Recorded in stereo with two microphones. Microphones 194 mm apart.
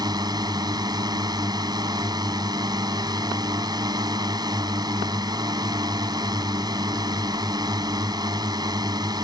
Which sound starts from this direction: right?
A drone, at 0.0 s.